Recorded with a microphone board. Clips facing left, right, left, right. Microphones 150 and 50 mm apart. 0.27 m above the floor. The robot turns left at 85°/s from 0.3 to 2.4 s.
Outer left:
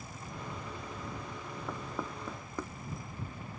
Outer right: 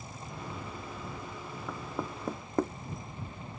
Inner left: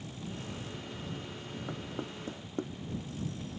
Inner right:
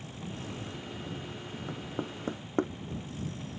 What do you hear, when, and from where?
1.7 s knocking: 10° left (ahead or behind); by 2.7 s 50° right (ahead or behind)